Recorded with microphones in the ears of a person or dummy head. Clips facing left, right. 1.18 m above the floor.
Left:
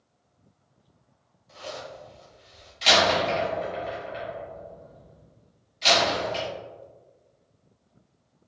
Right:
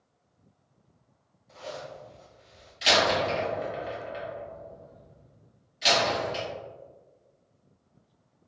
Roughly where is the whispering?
I don't hear whispering.